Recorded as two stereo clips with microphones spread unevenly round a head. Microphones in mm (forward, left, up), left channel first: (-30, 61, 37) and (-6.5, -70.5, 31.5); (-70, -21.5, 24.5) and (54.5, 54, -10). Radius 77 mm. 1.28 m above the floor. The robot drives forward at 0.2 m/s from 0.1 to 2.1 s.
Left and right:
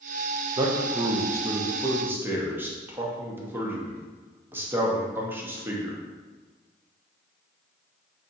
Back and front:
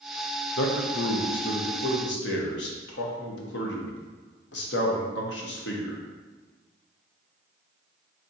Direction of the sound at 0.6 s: 140° right.